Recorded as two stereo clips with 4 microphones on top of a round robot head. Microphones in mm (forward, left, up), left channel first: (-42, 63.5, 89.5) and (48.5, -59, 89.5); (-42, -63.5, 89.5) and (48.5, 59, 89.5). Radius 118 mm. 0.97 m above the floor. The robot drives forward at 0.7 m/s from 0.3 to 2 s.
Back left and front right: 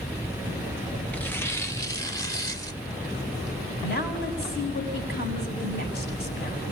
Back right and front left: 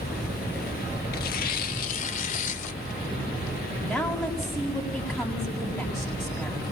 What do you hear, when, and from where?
1.1 s tearing paper: 150° right, 0.8 m; by 4.5 s 165° right, 1.4 m
3.8 s a woman speaking: 145° left, 7 m